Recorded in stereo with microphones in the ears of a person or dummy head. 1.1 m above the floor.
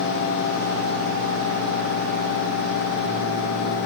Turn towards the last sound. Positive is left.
No sound to turn to.